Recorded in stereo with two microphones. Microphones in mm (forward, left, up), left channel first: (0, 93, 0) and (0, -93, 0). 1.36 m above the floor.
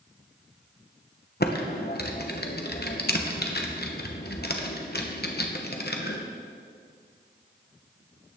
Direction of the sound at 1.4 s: 60° left (ahead or behind).